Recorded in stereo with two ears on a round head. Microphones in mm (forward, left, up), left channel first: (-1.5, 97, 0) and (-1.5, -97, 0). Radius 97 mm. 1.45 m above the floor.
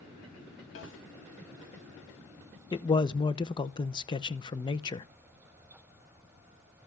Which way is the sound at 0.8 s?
60° left (ahead or behind).